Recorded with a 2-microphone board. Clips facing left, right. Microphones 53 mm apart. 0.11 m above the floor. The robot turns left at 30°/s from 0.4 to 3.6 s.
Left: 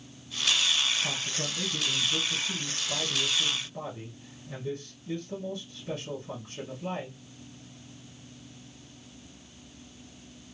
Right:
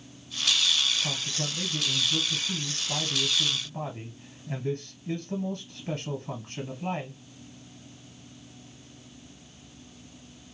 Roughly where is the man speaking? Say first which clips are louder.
Even; ahead.